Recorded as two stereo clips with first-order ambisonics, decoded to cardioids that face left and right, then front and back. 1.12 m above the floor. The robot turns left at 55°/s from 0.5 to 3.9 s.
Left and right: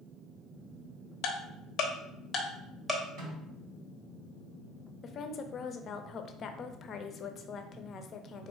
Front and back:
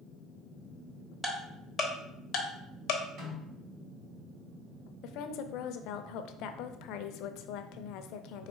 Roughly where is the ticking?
Left.